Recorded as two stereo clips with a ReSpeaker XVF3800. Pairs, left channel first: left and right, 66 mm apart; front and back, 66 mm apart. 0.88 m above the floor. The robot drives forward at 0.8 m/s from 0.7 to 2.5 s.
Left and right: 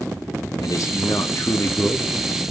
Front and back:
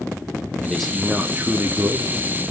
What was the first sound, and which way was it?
A man speaking, 85° left.